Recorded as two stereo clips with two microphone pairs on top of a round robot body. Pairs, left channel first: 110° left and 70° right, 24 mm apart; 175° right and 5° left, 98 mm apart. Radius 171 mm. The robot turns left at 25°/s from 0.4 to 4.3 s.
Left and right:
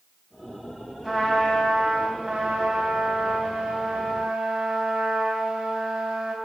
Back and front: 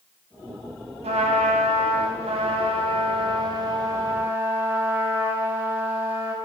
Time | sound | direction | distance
1.0 | a trumpet | 20° left | 0.7 m